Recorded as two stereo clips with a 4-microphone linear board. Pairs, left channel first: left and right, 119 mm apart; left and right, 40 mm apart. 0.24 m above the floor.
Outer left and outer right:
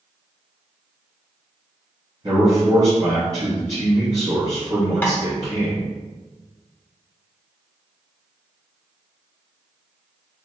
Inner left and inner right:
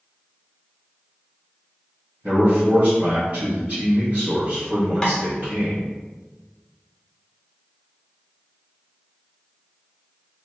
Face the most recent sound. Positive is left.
turn(degrees=15)  # may be behind; listen again after turning